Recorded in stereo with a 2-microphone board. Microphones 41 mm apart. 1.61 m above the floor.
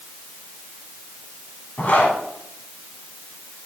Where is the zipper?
40° left (ahead or behind), 1.8 m.